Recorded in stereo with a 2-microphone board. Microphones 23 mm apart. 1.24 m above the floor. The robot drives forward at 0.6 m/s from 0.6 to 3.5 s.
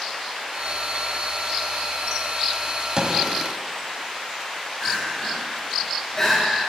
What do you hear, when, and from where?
3.0 s a gunshot: 40° right (ahead or behind), 1.4 m; by 3.3 s 45° right (ahead or behind), 1.3 m
4.8 s crying: 20° left (ahead or behind), 3.5 m